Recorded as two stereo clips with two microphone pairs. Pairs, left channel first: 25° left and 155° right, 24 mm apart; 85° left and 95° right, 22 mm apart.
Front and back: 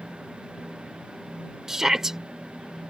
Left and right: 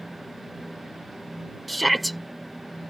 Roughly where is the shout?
Behind.